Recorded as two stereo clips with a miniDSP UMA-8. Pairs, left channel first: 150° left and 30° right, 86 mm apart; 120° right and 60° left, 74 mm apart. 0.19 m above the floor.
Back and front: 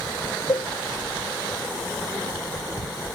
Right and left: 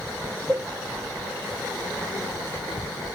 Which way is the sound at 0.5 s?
120° left.